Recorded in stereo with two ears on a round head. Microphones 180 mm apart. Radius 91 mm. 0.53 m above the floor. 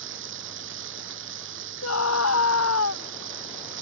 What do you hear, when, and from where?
0.0 s running water: 70° right (ahead or behind)
1.8 s a scream: 85° left